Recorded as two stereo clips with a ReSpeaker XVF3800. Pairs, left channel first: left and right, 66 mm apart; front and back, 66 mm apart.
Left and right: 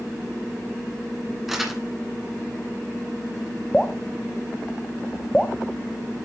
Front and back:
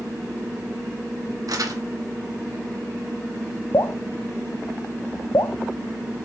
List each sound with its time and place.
1.5 s crumpling: 175° right, 1.8 m
3.7 s dripping: 10° left, 0.6 m